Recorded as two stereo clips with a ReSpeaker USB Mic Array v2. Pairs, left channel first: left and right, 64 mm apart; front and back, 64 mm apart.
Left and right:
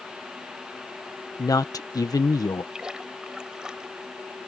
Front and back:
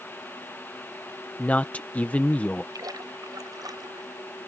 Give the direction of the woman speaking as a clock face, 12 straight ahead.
10 o'clock.